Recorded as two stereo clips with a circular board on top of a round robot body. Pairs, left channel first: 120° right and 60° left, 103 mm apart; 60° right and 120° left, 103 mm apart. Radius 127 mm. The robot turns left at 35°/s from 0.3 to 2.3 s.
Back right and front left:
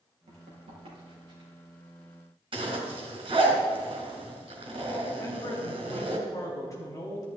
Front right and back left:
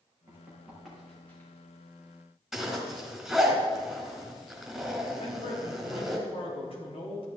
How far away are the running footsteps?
About 5.5 m.